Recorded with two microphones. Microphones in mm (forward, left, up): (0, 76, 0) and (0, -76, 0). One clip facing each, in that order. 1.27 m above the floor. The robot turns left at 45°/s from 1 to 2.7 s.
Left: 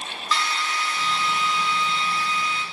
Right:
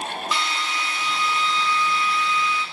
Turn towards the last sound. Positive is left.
turn(degrees=120)